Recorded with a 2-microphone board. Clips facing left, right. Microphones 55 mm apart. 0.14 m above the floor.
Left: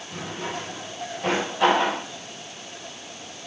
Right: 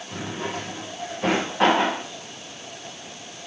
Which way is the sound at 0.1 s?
65° right (ahead or behind).